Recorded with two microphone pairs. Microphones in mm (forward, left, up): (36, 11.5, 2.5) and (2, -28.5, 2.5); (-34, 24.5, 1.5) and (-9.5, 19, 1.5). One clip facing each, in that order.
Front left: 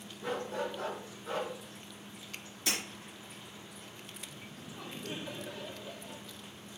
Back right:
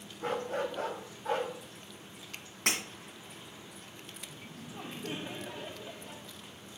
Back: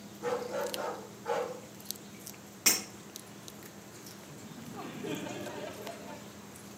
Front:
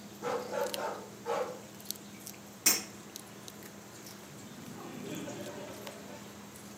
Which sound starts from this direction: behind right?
Breaking glass, at 2.7 s.